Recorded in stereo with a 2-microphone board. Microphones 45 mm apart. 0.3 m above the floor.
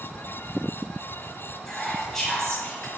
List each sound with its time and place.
1.7 s whispering: 5° left (ahead or behind), 1.5 m